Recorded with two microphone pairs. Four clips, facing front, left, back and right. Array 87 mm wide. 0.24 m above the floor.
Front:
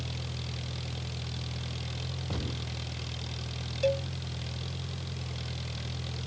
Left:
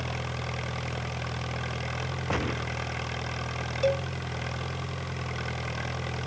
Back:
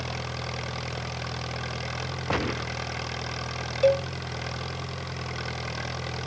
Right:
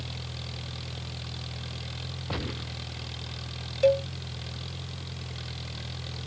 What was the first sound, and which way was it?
An engine running, 140° left.